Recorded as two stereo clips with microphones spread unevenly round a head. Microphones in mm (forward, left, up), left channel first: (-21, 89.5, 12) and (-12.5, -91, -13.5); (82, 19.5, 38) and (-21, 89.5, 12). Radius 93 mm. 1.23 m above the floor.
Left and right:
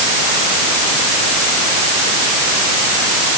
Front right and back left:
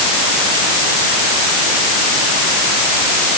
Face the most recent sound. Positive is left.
No sound to turn to.